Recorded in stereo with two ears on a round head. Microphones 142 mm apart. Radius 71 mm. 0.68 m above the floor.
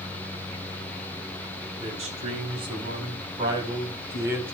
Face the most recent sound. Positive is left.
turn(degrees=-15)  # may be behind; listen again after turning